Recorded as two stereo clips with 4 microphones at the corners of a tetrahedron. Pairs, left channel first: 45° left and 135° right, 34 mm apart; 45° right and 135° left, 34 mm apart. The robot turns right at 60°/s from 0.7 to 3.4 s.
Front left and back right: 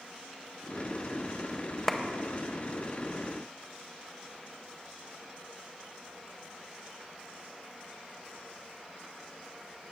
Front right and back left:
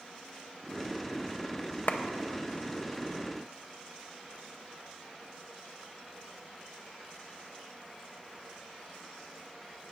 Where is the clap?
30° right, 0.6 m; by 2.0 s 25° right, 0.6 m.